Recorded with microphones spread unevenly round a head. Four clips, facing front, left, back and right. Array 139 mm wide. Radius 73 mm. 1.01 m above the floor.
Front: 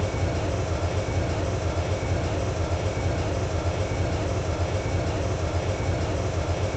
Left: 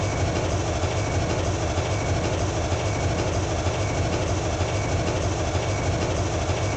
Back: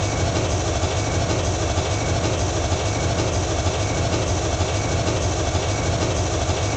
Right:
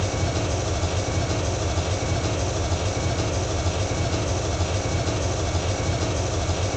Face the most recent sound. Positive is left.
turn(degrees=160)